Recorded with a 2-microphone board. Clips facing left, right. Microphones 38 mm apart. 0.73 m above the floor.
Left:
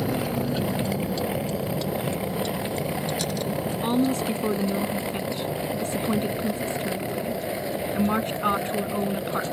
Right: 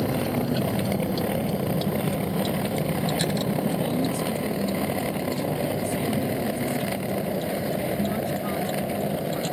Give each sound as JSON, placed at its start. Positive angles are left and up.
{"t": 0.0, "sound": "a vehicle", "side_deg": 5}
{"t": 3.8, "sound": "a woman speaking", "side_deg": 60}